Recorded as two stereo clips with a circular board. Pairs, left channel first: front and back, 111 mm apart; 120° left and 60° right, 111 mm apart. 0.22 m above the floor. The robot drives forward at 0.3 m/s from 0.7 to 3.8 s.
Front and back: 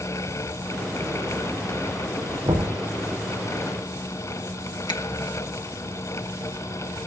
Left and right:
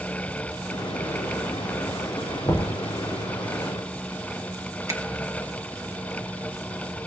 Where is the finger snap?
10° right, 1.6 m.